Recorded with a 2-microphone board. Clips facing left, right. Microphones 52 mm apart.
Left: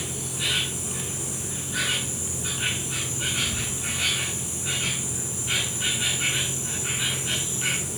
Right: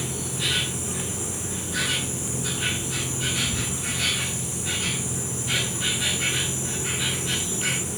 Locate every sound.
0.0 s an insect: 10° left (ahead or behind), 8.5 m